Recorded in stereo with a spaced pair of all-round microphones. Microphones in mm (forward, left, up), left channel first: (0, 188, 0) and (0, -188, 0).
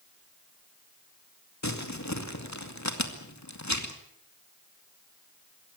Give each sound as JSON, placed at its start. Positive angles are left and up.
{"t": 1.6, "sound": "crumpling", "side_deg": 45, "distance_m": 2.5}